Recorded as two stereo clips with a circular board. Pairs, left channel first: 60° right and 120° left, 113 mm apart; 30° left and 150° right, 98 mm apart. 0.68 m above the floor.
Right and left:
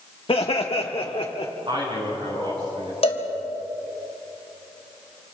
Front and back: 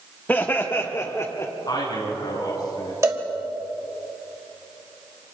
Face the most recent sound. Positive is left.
turn(degrees=-90)